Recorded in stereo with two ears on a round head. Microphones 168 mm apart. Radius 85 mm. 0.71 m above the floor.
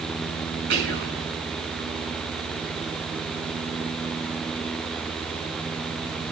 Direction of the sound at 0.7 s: 60° right (ahead or behind).